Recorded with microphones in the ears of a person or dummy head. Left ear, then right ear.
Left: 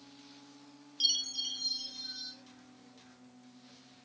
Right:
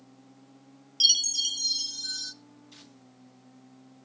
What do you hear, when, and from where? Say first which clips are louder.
1.0 s a chime: right 8 dB; 35° right (ahead or behind), 0.6 m